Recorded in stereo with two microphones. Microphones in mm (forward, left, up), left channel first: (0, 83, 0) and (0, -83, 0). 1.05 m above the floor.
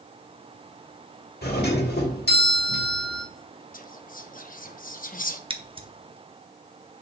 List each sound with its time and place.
1.4 s a doorbell: 70° left (ahead or behind), 1.7 m
3.7 s whispering: 55° left (ahead or behind), 0.8 m
5.5 s scissors: 30° right (ahead or behind), 0.7 m